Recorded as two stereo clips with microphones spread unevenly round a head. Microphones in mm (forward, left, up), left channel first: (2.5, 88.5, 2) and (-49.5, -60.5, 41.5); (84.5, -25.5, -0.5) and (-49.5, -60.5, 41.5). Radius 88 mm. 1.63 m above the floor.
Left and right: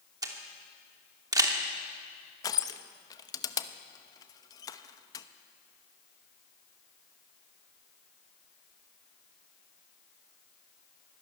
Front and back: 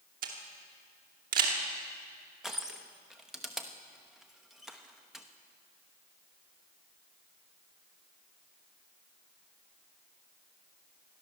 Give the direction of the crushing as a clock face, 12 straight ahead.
7 o'clock.